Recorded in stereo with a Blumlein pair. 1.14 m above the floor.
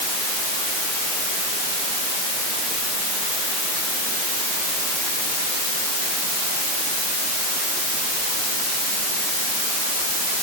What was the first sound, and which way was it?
Only background noise.